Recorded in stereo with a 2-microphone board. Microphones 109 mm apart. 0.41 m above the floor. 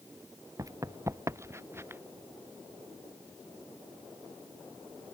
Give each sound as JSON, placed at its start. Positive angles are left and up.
{"t": 0.6, "sound": "running footsteps", "side_deg": -30}